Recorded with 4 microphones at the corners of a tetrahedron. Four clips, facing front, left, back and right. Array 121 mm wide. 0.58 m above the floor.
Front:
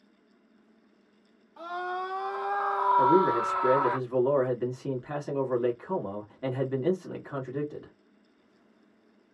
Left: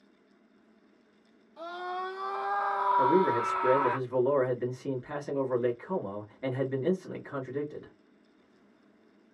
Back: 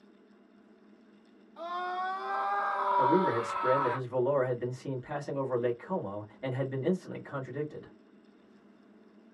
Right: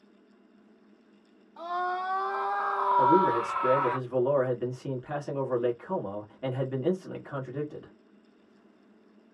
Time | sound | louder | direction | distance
1.6 | a scream | right 5 dB, front 1 dB | 75° right | 1.7 m
3.0 | a man speaking | right 3 dB, front 3 dB | 30° right | 1.4 m